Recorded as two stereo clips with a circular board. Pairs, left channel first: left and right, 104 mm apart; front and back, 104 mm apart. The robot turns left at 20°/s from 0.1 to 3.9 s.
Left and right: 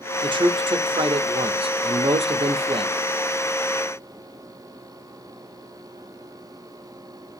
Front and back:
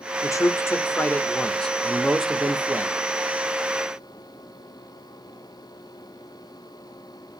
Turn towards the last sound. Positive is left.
turn(degrees=-130)